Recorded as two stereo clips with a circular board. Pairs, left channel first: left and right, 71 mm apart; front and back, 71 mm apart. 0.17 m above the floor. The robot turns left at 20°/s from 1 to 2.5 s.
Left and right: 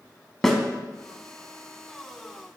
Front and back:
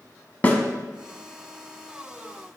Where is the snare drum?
5° left, 0.8 m.